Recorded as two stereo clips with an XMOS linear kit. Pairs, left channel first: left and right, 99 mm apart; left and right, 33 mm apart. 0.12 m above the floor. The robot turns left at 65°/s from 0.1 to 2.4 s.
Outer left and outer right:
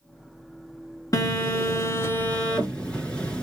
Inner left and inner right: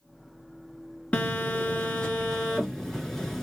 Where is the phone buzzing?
100° left, 1.2 m; by 3.4 s 20° left, 1.2 m.